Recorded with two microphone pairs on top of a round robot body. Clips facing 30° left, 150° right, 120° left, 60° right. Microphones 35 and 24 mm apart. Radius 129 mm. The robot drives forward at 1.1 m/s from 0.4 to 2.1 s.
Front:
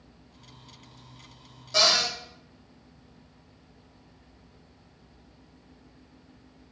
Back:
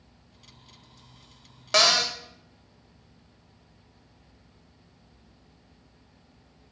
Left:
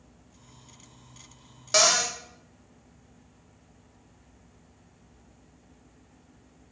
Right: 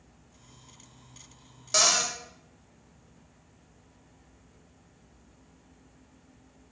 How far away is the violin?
No violin in this recording.